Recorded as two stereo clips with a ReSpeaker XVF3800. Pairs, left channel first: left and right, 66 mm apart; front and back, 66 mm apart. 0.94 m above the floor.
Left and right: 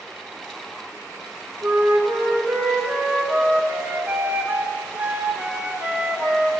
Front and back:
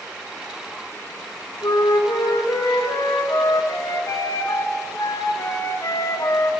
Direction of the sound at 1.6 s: 25° right.